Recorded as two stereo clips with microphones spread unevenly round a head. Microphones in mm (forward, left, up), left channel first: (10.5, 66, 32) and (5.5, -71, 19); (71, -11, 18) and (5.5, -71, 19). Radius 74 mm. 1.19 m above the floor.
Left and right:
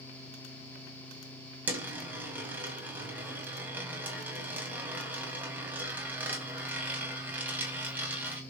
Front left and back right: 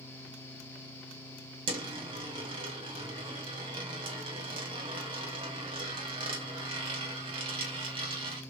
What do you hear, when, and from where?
1.7 s a dropped coin: 175° right, 1.6 m